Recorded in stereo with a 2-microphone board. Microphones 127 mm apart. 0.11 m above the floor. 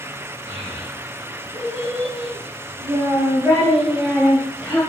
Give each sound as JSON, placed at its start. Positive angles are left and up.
{"t": 0.5, "sound": "a child speaking", "side_deg": -40, "distance_m": 3.5}